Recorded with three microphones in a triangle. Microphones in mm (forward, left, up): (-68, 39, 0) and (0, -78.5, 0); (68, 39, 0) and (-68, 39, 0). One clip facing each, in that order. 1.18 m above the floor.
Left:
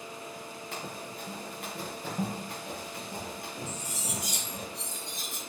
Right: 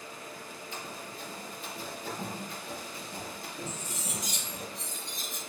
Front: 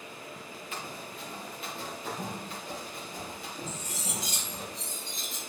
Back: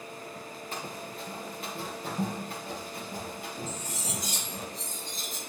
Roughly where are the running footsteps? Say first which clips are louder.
Left 3 dB, back 2 dB; behind left.